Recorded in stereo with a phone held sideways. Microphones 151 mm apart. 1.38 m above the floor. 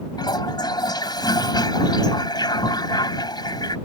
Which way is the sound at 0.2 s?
30° left (ahead or behind).